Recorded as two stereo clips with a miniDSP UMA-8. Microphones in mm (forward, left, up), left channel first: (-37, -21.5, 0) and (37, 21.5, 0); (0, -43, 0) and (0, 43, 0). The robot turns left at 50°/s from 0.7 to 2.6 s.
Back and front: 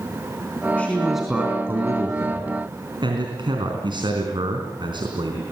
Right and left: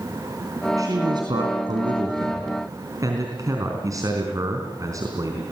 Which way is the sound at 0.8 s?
135° left.